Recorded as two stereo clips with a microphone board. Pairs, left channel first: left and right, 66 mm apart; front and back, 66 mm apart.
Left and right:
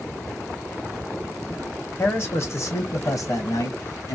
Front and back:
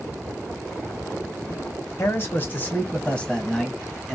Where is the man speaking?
40° left, 1.6 m; by 4.2 s 90° left, 1.8 m.